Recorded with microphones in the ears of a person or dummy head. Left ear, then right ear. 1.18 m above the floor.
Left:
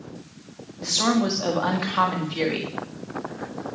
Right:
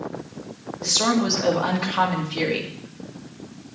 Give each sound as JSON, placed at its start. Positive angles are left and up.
{"t": 0.8, "sound": "a woman speaking", "side_deg": 5, "distance_m": 2.0}